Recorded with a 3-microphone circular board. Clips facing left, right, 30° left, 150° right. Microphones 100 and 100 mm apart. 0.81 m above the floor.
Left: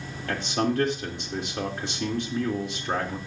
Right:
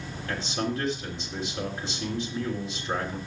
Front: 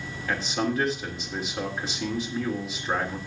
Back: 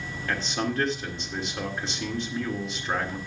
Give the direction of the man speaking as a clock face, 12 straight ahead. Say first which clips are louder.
Left 4 dB, front 2 dB; 8 o'clock.